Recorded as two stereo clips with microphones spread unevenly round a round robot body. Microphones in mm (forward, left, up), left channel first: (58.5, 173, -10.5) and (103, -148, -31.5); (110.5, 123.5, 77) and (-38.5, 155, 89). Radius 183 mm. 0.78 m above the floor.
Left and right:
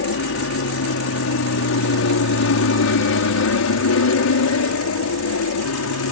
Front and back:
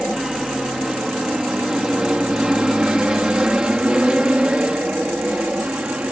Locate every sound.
0.0 s an aircraft: 80° left; by 6.1 s 85° left